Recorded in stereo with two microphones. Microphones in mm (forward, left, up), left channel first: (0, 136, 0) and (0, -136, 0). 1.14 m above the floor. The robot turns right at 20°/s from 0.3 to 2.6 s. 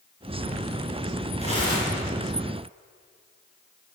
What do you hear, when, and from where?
1.4 s tearing paper: 25° left (ahead or behind), 4.5 m; by 2.0 s 10° left (ahead or behind), 4.5 m